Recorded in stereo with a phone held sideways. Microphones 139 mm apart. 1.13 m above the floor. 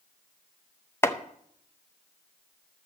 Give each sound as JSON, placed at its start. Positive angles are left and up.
{"t": 1.0, "sound": "chopping", "side_deg": 15, "distance_m": 0.7}